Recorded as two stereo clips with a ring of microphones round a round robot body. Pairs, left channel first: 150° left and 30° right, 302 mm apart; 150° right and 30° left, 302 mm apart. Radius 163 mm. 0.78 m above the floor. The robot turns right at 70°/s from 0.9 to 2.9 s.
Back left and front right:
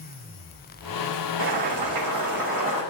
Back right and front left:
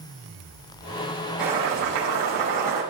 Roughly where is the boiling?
Ahead right.